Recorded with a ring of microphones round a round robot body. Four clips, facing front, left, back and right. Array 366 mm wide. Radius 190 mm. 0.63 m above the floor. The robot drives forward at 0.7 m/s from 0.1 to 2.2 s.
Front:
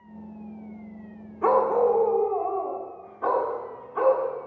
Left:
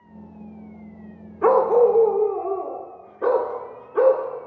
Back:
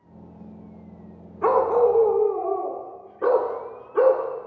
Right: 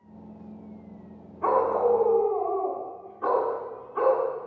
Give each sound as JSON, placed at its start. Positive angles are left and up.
{"t": 1.4, "sound": "a dog barking", "azimuth_deg": 95, "distance_m": 0.7}